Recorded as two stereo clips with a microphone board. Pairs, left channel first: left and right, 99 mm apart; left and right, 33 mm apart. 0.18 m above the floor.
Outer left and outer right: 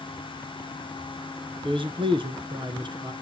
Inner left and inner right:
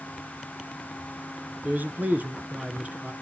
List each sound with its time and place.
1.6 s a man speaking: 60° right (ahead or behind), 2 m; by 3.1 s 45° right (ahead or behind), 2 m